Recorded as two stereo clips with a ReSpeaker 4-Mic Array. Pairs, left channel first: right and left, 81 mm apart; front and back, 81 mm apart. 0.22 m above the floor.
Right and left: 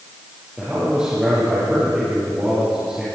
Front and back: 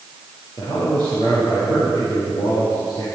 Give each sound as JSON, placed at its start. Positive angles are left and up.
{"t": 0.6, "sound": "a man speaking", "azimuth_deg": 10, "distance_m": 5.5}